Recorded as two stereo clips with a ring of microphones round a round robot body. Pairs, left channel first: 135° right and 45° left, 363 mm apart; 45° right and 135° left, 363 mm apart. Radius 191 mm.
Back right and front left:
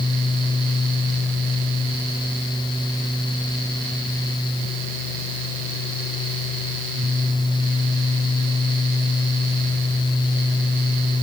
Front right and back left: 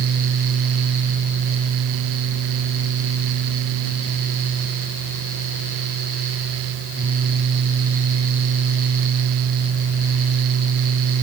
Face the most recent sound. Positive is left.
No sound to turn to.